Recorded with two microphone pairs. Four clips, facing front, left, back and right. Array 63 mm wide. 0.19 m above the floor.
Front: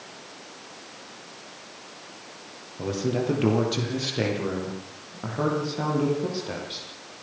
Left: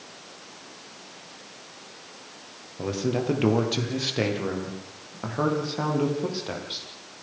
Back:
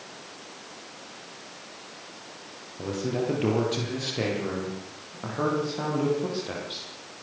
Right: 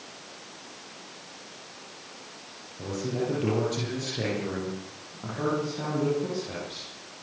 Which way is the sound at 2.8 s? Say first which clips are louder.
Left 3 dB, front 2 dB; 100° left.